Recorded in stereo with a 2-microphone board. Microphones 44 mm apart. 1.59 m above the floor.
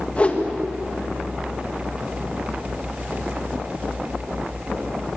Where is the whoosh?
30° left (ahead or behind), 2 m.